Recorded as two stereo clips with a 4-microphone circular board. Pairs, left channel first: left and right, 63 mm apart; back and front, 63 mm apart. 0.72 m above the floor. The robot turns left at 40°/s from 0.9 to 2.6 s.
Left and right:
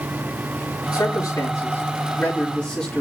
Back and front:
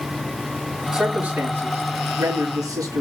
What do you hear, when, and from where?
0.9 s a man speaking: 80° left, 6.5 m; by 3.0 s 15° left, 6.5 m